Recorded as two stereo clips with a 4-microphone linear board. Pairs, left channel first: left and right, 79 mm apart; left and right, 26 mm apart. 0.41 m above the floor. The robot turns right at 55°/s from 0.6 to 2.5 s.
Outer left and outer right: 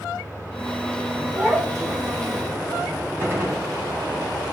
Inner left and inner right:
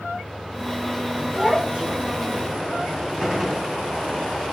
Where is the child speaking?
160° right, 2.5 m; by 2.4 s 105° right, 2.5 m.